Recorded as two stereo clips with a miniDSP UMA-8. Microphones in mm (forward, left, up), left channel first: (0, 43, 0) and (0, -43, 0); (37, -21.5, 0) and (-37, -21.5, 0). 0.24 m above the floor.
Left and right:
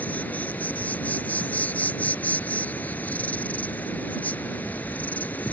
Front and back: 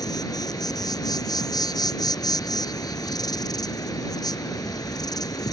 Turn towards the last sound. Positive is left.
turn(degrees=20)